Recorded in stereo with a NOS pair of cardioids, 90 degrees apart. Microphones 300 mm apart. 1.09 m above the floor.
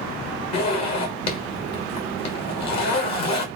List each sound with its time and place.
0.5 s a zipper: 60° left, 1.3 m